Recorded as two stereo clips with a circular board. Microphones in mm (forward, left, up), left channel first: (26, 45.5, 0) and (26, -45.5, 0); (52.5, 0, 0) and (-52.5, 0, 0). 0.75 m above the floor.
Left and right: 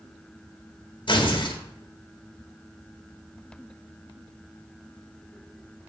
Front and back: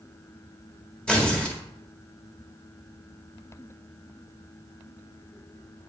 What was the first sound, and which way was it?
Tearing paper, 80° left.